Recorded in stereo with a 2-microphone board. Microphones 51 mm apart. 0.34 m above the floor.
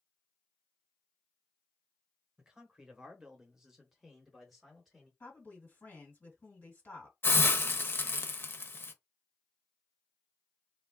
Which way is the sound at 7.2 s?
45° left (ahead or behind).